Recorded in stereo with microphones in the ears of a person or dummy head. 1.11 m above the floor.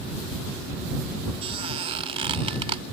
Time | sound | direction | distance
1.4 | a squeak | 35° right (ahead or behind) | ?